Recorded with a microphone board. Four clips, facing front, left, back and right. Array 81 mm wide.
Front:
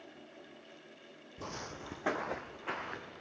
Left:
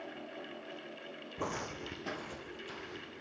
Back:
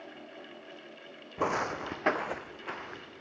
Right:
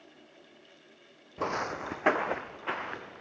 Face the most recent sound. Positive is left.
turn(degrees=-80)